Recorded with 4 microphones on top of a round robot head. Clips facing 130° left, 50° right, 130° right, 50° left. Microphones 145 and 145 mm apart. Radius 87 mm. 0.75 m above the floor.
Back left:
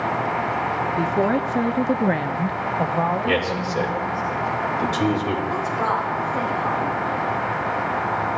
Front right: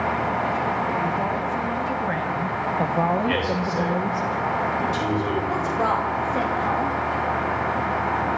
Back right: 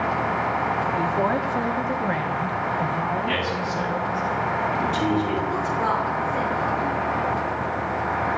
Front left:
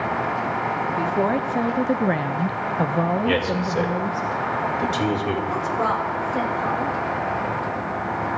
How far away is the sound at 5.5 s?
About 4.5 m.